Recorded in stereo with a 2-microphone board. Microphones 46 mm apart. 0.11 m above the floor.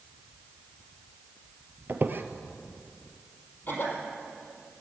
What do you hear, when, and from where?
1.9 s a squeak: 50° right (ahead or behind), 0.9 m
3.7 s a cough: 45° left (ahead or behind), 4 m